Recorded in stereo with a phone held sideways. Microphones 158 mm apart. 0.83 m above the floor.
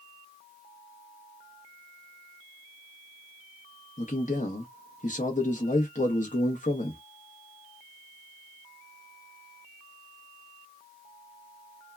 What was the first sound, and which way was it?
A man speaking, 50° left (ahead or behind).